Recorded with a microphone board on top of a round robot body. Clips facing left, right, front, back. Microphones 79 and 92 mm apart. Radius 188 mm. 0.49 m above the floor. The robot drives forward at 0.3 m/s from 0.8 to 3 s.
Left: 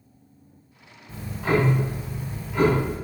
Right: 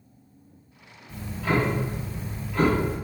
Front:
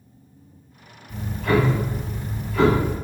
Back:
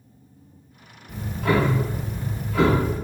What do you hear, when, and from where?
1.1 s ticking: 155° left, 0.5 m; by 3.0 s 170° left, 1.0 m